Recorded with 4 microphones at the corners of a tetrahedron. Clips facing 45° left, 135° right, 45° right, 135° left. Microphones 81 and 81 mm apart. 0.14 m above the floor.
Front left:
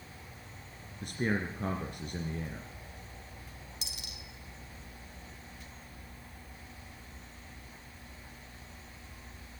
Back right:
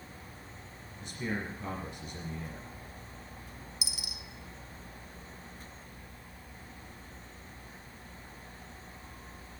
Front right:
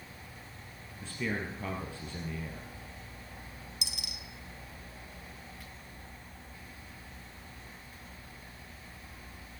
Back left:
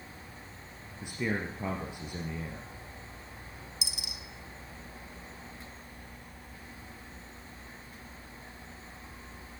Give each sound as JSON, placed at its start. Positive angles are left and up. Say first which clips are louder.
{"t": 1.0, "sound": "a man speaking", "louder": "front left 4 dB, back left 2 dB", "azimuth_deg": 65, "distance_m": 2.5}
{"t": 3.8, "sound": "a dropped coin", "louder": "back right 3 dB, back left 1 dB", "azimuth_deg": -55, "distance_m": 1.3}